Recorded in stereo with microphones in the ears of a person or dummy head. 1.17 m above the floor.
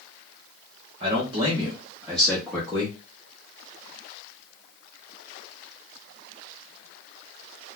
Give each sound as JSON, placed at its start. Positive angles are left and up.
{"t": 1.0, "sound": "a man speaking", "side_deg": -35, "distance_m": 0.9}